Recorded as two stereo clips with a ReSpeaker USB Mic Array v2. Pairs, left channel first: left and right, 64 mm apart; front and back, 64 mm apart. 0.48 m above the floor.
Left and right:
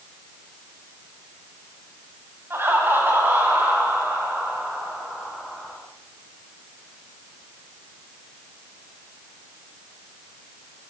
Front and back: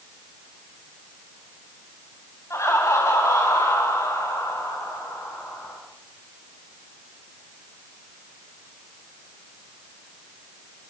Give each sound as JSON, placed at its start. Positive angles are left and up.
{"t": 2.5, "sound": "laughter", "azimuth_deg": -40, "distance_m": 3.5}